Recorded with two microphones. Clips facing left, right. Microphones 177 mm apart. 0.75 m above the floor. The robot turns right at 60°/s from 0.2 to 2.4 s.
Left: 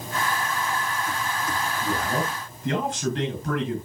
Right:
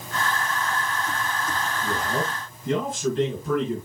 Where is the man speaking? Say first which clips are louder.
Left 1 dB; 70° left, 9 m; by 3.9 s 105° left, 9 m.